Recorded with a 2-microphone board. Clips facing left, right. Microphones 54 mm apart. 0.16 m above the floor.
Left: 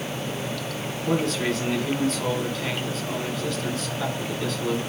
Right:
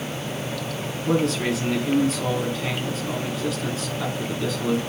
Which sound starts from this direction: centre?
A man speaking, at 1.1 s.